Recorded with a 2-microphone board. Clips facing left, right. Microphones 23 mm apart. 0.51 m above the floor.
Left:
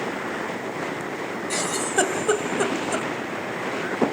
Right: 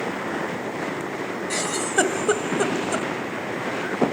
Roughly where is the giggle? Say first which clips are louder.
Right 1 dB; centre.